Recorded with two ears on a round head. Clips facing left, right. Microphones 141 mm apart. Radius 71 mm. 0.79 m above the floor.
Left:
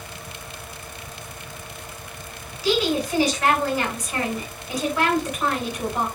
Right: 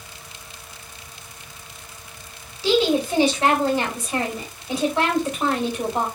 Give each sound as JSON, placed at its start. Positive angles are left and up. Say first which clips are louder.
{"t": 2.6, "sound": "a woman speaking", "louder": "right 3 dB", "side_deg": -25, "distance_m": 3.5}